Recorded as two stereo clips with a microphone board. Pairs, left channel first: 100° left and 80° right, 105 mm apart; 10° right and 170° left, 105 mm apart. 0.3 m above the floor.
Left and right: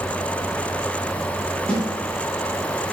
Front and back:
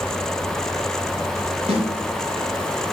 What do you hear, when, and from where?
1.7 s a snare drum: straight behind, 5 m